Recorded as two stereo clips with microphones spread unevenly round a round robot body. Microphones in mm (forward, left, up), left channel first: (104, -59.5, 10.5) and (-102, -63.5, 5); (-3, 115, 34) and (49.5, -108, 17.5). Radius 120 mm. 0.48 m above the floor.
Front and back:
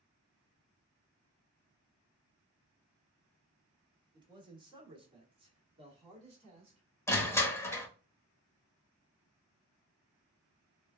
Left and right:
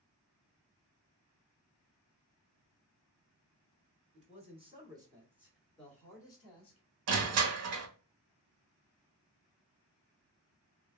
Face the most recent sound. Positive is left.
turn(degrees=-75)